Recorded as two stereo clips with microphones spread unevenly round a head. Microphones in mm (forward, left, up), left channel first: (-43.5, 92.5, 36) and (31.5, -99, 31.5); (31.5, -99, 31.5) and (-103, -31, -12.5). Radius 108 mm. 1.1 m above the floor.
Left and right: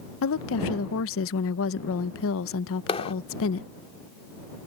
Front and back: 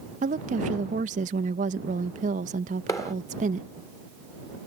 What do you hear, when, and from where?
0.2 s a woman speaking: 115° left
2.9 s a clap: 50° left